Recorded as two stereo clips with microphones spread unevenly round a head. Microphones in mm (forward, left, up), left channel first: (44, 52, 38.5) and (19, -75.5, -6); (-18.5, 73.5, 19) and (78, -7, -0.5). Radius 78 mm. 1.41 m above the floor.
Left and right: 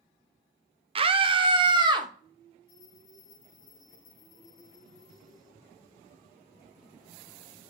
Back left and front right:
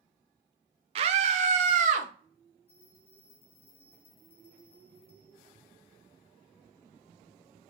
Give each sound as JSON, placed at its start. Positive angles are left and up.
{"t": 0.9, "sound": "a scream", "azimuth_deg": -75, "distance_m": 0.9}
{"t": 2.7, "sound": "a bell", "azimuth_deg": 110, "distance_m": 4.0}